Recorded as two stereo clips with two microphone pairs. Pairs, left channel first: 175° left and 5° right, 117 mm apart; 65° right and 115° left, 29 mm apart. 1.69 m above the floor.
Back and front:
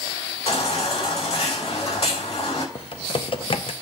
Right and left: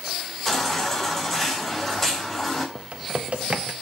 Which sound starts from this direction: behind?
A baby crying, at 0.5 s.